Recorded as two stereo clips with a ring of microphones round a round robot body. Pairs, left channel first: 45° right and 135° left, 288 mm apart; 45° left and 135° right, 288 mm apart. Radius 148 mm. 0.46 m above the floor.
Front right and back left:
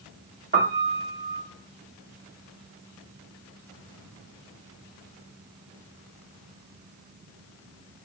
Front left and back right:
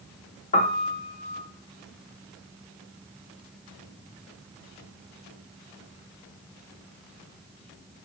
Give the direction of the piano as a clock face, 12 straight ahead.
9 o'clock.